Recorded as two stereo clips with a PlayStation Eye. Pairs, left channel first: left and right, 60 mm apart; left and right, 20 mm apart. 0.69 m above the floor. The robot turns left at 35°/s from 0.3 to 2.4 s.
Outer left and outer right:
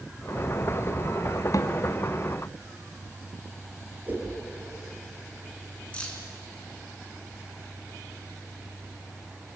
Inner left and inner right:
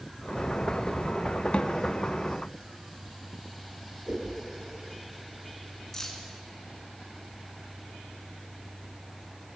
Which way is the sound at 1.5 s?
60° left (ahead or behind).